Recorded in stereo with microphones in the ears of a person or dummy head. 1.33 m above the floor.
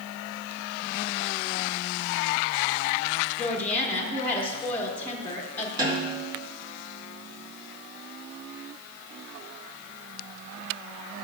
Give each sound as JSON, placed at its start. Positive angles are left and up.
{"t": 3.4, "sound": "a woman speaking", "side_deg": 15, "distance_m": 1.4}
{"t": 5.8, "sound": "a snare drum", "side_deg": -25, "distance_m": 4.0}